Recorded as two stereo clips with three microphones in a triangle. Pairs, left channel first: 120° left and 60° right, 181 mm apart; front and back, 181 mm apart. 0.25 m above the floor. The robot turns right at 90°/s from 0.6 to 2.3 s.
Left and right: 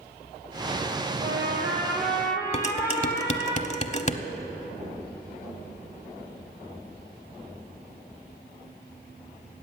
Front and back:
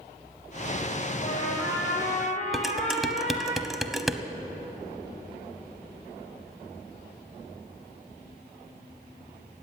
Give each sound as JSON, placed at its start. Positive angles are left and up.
{"t": 1.2, "sound": "a trumpet", "azimuth_deg": -50, "distance_m": 3.5}
{"t": 2.5, "sound": "dishes clattering", "azimuth_deg": 90, "distance_m": 0.9}